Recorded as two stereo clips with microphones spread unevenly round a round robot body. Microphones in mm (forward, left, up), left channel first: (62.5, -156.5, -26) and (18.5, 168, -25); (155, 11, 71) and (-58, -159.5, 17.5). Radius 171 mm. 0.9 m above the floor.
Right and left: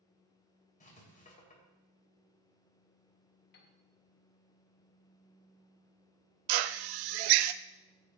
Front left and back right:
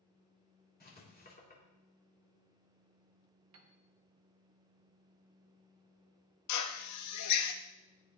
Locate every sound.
0.8 s writing: 15° right, 4 m
3.5 s a piano: 140° right, 1.1 m
6.5 s a drill: 80° left, 0.5 m